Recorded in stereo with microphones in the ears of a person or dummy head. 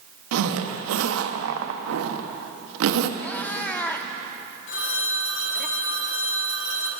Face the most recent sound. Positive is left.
turn(degrees=70)  # may be behind; listen again after turning